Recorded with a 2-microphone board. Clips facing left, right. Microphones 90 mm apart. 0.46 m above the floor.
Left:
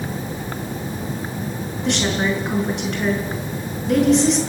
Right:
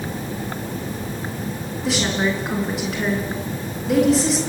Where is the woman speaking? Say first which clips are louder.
Left 1 dB; centre (ahead or behind), 5.5 m.